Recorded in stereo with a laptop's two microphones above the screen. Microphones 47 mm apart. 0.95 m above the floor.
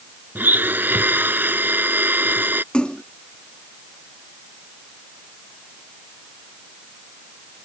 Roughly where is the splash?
Left.